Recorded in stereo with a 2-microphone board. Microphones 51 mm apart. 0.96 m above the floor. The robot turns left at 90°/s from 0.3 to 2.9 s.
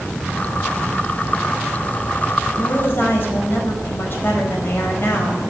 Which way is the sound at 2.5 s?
80° left.